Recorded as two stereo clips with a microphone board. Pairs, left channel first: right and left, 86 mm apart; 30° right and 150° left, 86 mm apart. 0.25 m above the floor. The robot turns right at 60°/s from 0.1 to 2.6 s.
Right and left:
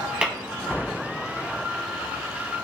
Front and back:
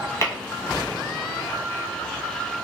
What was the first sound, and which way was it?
Tapping, 15° left.